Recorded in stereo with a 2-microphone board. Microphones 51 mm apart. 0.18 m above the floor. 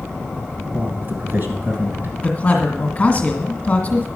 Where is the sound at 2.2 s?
25° left (ahead or behind), 1.7 m.